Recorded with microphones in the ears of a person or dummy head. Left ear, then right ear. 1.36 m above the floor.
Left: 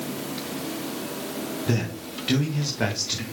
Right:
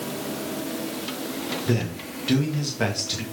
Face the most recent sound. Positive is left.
turn(degrees=-10)  # may be behind; listen again after turning